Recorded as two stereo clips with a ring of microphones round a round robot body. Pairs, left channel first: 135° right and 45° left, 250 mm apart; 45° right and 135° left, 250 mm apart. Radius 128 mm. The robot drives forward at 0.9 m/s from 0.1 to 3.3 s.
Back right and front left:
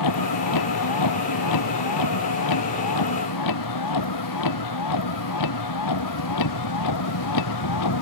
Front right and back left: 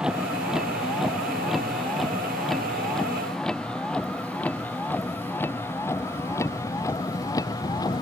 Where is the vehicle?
140° right; by 8.0 s 120° right.